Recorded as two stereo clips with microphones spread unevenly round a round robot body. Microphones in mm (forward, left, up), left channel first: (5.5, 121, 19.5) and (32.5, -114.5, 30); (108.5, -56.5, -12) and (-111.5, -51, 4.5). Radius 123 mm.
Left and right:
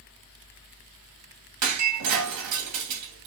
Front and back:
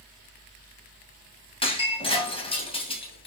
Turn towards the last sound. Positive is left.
turn(degrees=-70)